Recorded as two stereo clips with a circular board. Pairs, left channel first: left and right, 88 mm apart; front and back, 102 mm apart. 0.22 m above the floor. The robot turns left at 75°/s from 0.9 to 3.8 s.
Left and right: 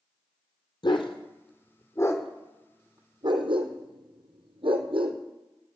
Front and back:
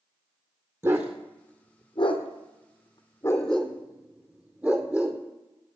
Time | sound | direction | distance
0.8 | a dog barking | 110° left | 2.0 m